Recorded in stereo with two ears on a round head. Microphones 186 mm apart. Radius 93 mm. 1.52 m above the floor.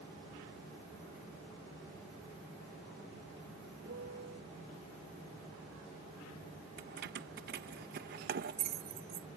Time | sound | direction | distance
3.9 | a piano | 55° right (ahead or behind) | ?
6.8 | keys jangling | 50° right (ahead or behind) | ?